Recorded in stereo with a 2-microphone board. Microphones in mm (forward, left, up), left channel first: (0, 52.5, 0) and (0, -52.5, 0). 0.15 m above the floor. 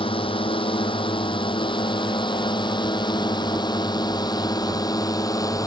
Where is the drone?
55° left (ahead or behind); by 5.7 s 35° left (ahead or behind).